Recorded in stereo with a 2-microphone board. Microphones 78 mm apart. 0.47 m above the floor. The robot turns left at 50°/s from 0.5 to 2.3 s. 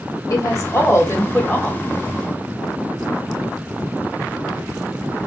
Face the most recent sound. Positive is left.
turn(degrees=-5)